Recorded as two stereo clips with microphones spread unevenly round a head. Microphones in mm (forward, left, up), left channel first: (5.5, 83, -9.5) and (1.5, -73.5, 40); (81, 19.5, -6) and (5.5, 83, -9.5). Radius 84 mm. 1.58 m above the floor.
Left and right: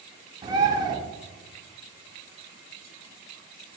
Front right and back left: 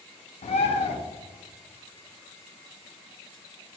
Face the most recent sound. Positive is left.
turn(degrees=-25)